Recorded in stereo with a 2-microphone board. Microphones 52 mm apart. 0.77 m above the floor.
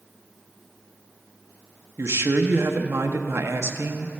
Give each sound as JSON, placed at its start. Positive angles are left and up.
{"t": 2.0, "sound": "a man speaking", "side_deg": -60, "distance_m": 0.7}